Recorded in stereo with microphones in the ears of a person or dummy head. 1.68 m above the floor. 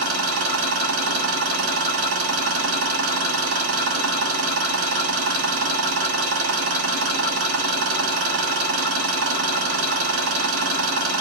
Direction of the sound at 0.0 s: 60° right (ahead or behind).